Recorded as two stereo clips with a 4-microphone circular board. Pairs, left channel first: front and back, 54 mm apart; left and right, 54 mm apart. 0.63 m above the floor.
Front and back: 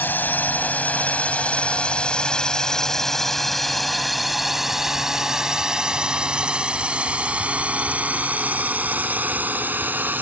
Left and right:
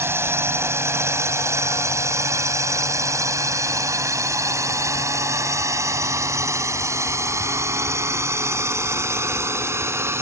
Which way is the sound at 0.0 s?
55° right.